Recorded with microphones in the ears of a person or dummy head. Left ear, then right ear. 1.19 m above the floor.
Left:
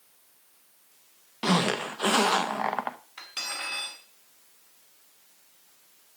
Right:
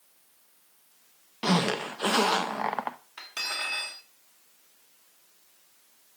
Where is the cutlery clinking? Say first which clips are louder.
Right 4 dB; 15° right (ahead or behind), 2 m.